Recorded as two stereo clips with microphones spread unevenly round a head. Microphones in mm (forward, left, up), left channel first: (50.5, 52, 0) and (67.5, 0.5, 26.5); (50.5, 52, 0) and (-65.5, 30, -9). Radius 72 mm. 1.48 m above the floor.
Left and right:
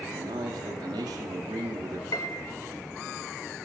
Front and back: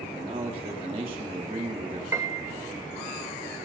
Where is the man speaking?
110° right, 2 m.